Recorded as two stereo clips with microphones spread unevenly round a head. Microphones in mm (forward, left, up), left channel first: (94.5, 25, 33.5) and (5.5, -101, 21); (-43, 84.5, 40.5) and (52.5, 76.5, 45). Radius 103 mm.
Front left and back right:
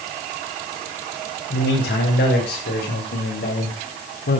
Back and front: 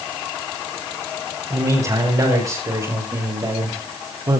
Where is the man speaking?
45° left, 6 m; by 4.4 s 40° left, 4.5 m.